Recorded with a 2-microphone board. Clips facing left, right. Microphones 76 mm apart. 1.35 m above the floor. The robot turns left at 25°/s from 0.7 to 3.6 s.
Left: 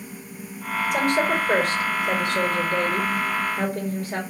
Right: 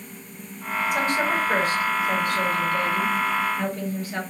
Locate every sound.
0.9 s a woman speaking: 130° left, 2 m; by 4.2 s 60° left, 2 m